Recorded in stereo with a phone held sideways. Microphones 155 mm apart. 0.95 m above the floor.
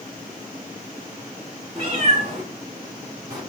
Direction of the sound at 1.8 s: 45° right (ahead or behind).